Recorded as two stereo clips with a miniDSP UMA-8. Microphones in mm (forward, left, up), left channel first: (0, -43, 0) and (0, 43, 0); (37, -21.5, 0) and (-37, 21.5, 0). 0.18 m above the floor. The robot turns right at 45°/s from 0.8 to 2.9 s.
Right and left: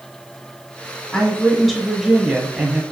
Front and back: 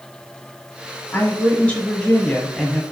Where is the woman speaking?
20° right, 1.2 m; by 2.8 s 55° left, 1.2 m.